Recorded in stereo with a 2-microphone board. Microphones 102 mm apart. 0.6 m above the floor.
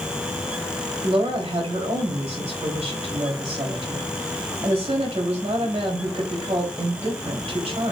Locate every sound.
1.0 s a woman speaking: 70° right (ahead or behind), 3.5 m